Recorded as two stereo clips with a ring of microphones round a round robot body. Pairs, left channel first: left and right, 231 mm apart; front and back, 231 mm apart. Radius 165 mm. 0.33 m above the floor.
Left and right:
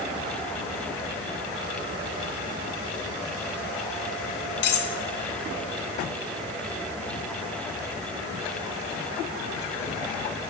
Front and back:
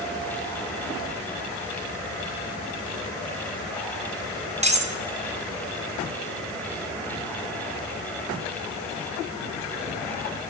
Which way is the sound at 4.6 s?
120° left.